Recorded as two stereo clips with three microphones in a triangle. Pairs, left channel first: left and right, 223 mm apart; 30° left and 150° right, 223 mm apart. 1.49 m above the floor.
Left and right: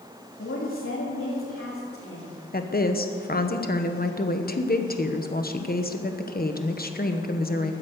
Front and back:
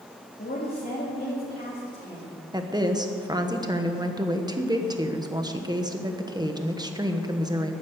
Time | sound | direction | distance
0.4 | a woman speaking | 70° left | 2.5 m
2.5 | a woman speaking | 140° left | 1.2 m